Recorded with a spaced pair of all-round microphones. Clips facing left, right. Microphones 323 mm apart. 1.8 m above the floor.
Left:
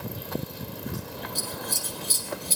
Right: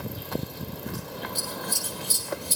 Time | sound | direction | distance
1.4 | scissors | 15° right (ahead or behind) | 5 m